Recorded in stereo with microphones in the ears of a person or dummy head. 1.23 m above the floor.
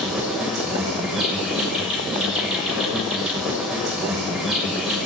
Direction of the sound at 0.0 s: Centre (ahead or behind).